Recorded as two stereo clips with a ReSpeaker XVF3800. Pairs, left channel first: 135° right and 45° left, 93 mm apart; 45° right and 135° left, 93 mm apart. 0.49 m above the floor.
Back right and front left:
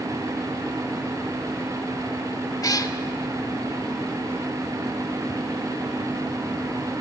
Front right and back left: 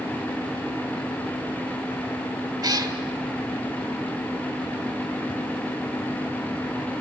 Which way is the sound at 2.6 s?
Straight behind.